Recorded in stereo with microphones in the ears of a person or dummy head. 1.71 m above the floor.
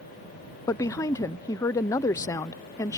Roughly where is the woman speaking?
Centre.